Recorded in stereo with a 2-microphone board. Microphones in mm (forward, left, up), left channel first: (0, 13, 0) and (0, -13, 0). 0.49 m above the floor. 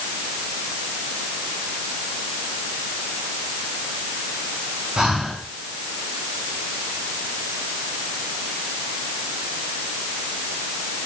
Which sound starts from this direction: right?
Breathing, at 5.0 s.